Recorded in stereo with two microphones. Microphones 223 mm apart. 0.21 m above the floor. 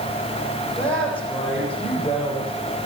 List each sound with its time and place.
0.8 s a woman speaking: 5° left (ahead or behind), 7.5 m